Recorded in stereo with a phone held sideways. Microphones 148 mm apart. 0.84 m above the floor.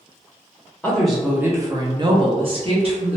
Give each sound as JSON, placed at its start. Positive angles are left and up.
{"t": 0.8, "sound": "a woman speaking", "side_deg": 10, "distance_m": 0.6}